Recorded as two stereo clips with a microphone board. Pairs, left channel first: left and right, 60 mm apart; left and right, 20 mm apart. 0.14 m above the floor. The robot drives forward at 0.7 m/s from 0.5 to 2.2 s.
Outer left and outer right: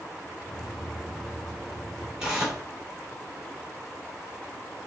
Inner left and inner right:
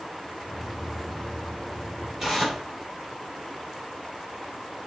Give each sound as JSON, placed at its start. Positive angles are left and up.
{"t": 2.2, "sound": "tearing paper", "side_deg": -15, "distance_m": 1.6}